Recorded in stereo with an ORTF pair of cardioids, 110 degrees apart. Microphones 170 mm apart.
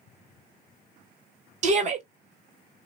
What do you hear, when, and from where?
1.6 s a shout: 45° right, 1.1 m